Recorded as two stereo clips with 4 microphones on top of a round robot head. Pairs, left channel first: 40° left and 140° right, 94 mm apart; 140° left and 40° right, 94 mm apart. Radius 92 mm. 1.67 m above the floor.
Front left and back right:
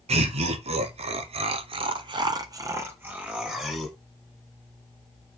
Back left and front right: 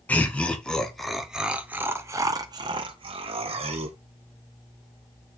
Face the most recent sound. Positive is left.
turn(degrees=-50)